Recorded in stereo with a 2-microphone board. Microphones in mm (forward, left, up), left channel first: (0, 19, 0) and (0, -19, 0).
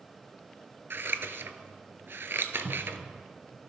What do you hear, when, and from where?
0.9 s scissors: 75° right (ahead or behind), 0.6 m
2.6 s a cupboard door: 5° right (ahead or behind), 1.1 m